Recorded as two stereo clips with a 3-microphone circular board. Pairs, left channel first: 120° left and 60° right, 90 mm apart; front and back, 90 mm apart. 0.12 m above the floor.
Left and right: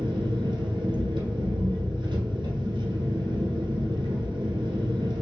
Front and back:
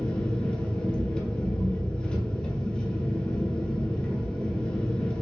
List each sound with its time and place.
0.0 s an engine running: 80° right, 1.2 m